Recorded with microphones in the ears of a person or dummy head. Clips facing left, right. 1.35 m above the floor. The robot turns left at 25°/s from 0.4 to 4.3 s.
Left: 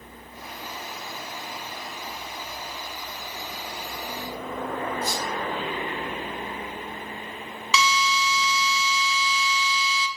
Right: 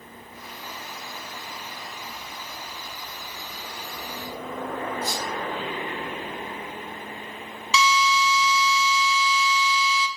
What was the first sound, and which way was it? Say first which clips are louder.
A squeak: left 1 dB; 55° left (ahead or behind).